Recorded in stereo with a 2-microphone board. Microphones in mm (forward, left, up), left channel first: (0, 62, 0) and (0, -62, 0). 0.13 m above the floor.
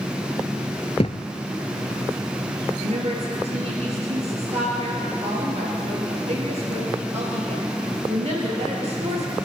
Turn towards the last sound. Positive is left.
turn(degrees=-60)  # may be behind; listen again after turning